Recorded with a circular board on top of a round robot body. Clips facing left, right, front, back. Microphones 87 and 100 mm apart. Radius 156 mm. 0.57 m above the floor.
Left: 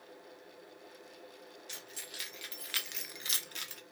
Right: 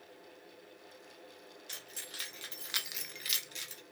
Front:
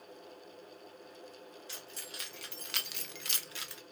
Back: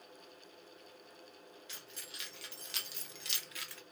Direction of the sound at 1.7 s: 50° right.